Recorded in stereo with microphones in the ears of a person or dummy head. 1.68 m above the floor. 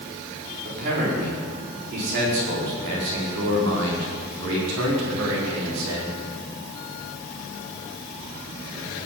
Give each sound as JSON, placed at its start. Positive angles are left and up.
{"t": 0.7, "sound": "a man speaking", "side_deg": -55, "distance_m": 5.0}